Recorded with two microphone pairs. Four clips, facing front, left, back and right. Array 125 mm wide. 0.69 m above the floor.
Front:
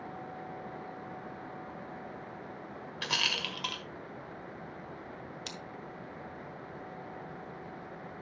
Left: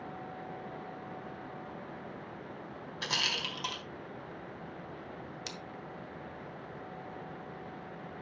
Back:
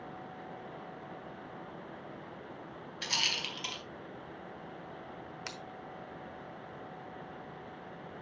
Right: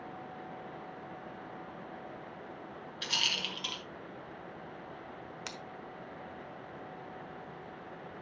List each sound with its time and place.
3.0 s a rattle: 35° left, 1.9 m
5.5 s scissors: 120° right, 1.0 m